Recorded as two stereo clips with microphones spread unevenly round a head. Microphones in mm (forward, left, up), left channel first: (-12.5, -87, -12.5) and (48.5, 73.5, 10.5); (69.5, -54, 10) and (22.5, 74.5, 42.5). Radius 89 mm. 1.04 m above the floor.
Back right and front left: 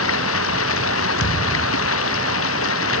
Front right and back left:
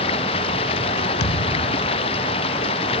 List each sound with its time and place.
0.0 s running water: 130° right
1.2 s a thud: 85° right